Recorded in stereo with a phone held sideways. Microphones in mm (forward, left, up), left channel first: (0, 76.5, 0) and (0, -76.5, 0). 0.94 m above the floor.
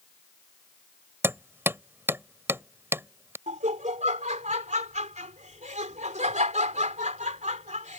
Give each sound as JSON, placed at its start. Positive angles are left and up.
{"t": 1.2, "sound": "hammering", "side_deg": -15}
{"t": 3.5, "sound": "laughter", "side_deg": -55}